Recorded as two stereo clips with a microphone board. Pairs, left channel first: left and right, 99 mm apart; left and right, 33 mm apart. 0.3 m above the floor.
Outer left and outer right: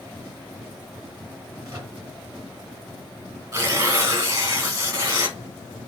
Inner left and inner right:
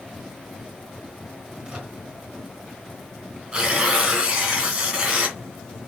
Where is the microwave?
35° right (ahead or behind), 3 m.